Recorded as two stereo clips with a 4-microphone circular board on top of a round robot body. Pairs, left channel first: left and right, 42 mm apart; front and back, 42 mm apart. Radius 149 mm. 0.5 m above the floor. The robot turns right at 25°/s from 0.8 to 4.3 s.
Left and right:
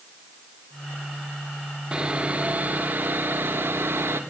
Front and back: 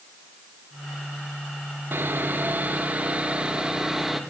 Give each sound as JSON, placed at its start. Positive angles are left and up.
{"t": 1.9, "sound": "sawing", "azimuth_deg": -155, "distance_m": 2.0}